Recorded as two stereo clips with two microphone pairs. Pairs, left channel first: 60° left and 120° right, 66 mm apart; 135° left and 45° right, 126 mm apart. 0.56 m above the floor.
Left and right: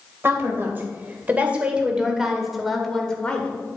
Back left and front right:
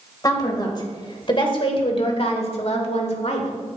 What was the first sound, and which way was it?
A woman speaking, 170° right.